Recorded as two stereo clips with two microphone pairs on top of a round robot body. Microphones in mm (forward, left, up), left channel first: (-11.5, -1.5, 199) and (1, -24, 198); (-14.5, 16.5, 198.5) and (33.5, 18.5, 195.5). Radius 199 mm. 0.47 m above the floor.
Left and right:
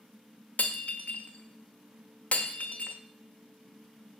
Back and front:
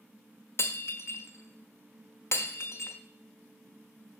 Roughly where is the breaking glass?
Behind left.